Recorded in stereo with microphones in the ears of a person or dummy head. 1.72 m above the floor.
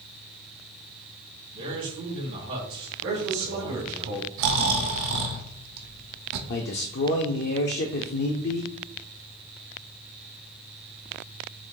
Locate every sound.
1.5 s a man speaking: 55° right (ahead or behind), 3 m
3.0 s a man speaking: 75° right (ahead or behind), 1.8 m
4.4 s snoring: 70° right (ahead or behind), 0.7 m
6.5 s a man speaking: 50° left (ahead or behind), 0.6 m